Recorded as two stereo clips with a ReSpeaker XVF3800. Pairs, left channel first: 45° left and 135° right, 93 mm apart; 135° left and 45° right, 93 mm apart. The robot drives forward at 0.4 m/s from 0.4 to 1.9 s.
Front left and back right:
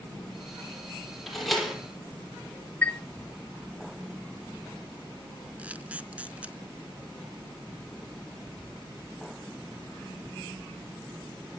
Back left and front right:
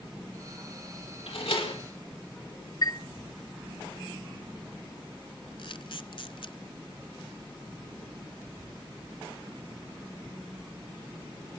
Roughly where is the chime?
Behind left.